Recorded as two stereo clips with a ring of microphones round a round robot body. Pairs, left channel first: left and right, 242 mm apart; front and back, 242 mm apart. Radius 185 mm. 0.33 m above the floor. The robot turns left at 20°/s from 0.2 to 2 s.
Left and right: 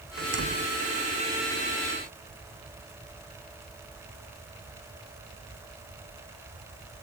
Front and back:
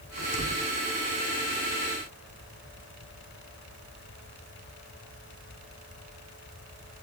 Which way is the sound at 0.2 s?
50° right.